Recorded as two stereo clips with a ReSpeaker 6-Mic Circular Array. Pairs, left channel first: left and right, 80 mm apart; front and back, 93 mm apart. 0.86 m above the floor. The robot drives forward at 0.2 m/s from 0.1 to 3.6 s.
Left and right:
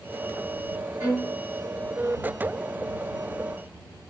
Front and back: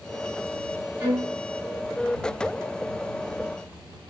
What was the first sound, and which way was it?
A violin, 140° right.